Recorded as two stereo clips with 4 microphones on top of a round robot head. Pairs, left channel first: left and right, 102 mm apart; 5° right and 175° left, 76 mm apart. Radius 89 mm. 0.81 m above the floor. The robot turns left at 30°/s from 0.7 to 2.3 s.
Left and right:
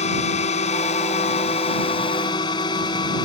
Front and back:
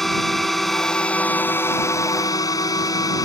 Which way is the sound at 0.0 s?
85° left.